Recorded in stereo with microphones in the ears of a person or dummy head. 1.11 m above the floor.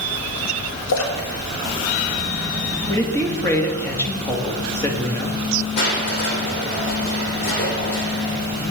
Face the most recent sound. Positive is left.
turn(degrees=65)  # may be behind; listen again after turning